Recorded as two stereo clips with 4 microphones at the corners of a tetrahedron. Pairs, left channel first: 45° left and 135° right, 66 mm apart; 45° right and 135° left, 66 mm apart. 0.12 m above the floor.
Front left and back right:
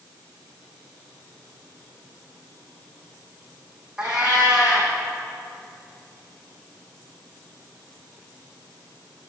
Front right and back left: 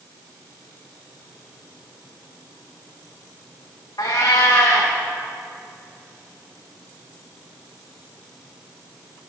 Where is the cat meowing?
55° right, 2 m.